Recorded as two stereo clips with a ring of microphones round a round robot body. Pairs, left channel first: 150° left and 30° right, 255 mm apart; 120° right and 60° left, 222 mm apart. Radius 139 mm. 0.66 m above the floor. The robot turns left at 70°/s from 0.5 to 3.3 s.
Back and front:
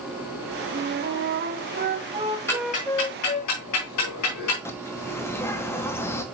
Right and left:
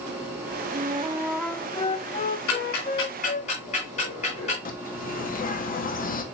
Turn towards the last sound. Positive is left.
turn(degrees=-135)